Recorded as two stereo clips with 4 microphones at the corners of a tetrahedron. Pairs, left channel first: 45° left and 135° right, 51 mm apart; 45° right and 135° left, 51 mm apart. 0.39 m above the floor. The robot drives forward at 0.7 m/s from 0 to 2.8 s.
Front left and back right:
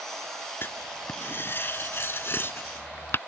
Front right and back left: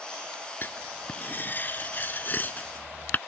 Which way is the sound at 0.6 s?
5° left.